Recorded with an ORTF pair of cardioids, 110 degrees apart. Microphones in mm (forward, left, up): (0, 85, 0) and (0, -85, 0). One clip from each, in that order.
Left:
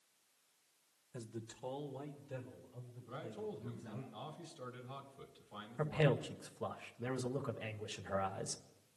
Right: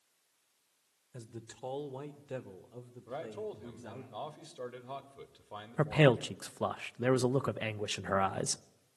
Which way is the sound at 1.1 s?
Straight ahead.